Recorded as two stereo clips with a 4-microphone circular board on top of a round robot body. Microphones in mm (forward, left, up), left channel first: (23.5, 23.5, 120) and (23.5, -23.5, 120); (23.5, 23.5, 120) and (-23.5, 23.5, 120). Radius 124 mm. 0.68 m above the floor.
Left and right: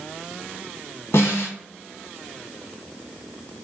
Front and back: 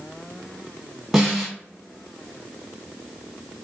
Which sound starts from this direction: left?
A snare drum, at 1.1 s.